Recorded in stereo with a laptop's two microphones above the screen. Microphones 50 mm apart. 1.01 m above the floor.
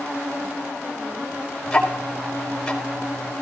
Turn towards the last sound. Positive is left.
turn(degrees=10)  # may be behind; listen again after turning